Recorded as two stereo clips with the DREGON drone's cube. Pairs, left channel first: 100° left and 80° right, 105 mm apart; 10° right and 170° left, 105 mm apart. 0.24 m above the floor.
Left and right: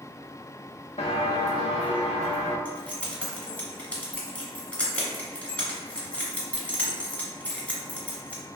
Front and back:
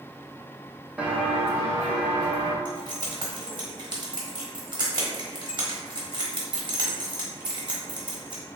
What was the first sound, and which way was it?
Footsteps, 90° left.